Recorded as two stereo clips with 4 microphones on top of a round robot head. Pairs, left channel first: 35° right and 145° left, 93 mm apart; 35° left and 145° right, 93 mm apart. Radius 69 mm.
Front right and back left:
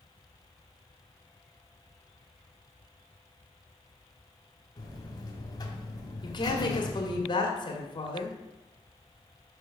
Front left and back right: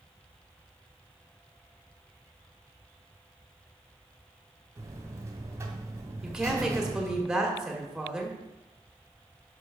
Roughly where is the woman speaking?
Ahead right.